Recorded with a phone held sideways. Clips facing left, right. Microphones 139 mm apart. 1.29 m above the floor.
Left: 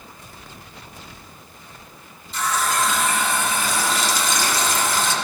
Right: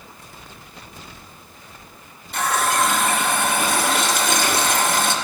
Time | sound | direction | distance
2.3 | a running tap | 55° right (ahead or behind) | 0.9 m